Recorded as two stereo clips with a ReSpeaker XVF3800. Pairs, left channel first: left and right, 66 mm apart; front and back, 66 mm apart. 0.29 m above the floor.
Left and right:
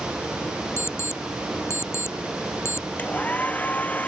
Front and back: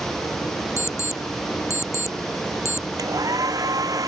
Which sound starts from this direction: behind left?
A hair dryer, at 3.0 s.